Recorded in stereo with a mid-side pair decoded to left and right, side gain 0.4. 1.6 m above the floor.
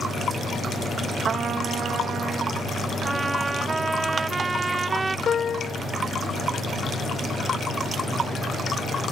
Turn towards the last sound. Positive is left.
turn(degrees=50)